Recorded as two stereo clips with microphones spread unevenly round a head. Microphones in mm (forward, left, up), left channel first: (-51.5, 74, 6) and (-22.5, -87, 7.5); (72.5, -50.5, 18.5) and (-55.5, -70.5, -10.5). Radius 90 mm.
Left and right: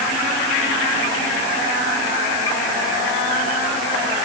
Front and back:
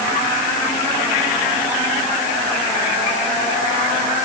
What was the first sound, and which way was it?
Only background noise.